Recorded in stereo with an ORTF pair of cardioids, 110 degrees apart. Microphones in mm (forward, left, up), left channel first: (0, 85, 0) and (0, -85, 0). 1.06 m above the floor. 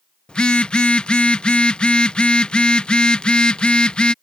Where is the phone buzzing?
5° left.